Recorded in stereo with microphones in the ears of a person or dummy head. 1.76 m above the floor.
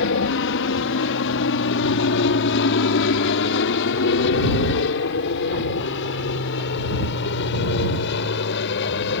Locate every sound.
0.0 s an aircraft: 65° left (ahead or behind); by 9.2 s 60° left (ahead or behind)